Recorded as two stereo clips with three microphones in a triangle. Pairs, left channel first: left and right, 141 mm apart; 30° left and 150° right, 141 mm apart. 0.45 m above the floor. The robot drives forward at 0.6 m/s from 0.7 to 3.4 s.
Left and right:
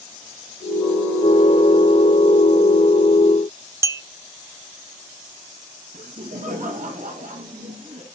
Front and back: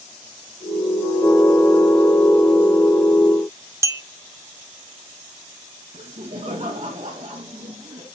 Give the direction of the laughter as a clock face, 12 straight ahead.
3 o'clock.